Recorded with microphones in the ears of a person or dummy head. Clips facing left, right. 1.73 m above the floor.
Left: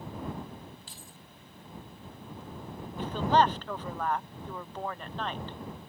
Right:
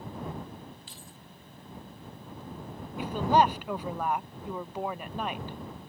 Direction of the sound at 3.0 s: 10° right (ahead or behind).